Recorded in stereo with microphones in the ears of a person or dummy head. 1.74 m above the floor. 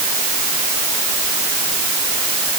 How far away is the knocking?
No knocking in this recording.